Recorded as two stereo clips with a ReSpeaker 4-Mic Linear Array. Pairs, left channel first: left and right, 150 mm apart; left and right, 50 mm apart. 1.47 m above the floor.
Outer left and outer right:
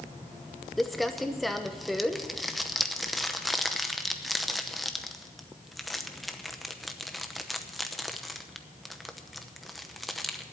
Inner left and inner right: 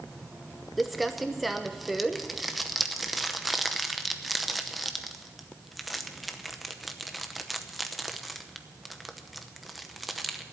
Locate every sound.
0.8 s crumpling: centre (ahead or behind), 0.9 m